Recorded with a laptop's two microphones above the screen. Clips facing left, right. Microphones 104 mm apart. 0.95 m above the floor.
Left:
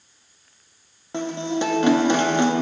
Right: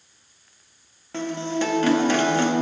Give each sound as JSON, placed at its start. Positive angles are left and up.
{"t": 1.1, "sound": "a guitar", "side_deg": 20, "distance_m": 1.1}